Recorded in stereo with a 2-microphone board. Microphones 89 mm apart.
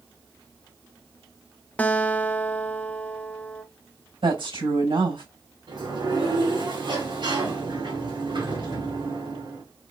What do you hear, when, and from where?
1.8 s a guitar: 15° left (ahead or behind), 0.5 m
4.2 s a woman speaking: 80° right, 4 m
5.7 s a sliding door: 65° right (ahead or behind), 3.5 m